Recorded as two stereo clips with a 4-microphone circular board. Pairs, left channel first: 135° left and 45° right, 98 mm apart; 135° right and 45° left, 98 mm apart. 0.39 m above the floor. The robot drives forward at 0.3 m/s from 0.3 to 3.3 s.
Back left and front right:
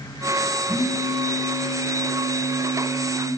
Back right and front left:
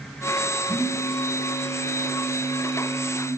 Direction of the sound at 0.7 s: 160° left.